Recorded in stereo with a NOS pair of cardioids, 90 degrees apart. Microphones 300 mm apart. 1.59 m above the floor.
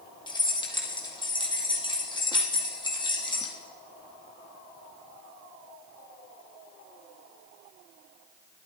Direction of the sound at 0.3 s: 15° left.